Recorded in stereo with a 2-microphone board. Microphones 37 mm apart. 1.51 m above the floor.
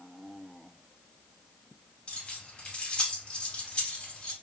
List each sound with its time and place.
2.1 s keys jangling: 30° left (ahead or behind), 2 m